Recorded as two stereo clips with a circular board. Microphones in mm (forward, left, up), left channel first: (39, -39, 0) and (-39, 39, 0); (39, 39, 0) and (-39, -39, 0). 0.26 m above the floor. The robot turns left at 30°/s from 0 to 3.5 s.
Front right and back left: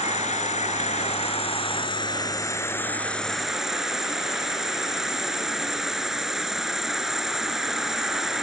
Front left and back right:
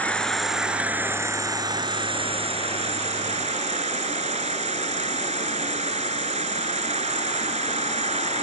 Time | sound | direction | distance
0.0 | an insect | 35° right | ?